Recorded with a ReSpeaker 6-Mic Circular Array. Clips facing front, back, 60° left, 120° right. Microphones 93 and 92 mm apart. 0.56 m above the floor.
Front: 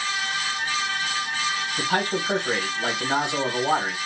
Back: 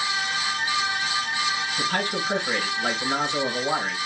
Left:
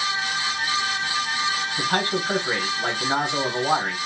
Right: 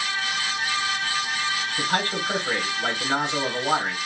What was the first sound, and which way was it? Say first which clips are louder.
A man speaking: front 4 dB, left 1 dB; 10° right.